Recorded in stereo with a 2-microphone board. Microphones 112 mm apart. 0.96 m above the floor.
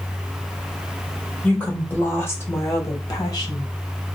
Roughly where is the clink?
I don't hear a clink.